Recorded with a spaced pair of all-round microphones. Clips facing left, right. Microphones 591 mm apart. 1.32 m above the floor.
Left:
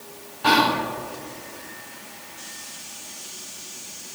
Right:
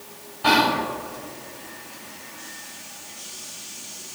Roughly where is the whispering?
Centre.